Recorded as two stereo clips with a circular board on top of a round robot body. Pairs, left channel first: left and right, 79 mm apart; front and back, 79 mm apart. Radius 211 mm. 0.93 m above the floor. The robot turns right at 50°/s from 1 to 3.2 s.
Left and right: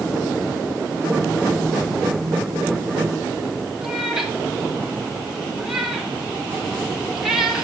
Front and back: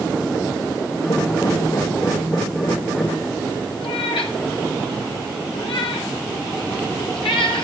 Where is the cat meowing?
5° right, 1.8 m.